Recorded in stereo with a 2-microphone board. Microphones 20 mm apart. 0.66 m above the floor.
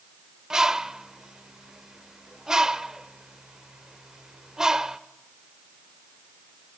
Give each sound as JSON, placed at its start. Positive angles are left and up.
{"t": 0.5, "sound": "a bird", "side_deg": -30, "distance_m": 0.6}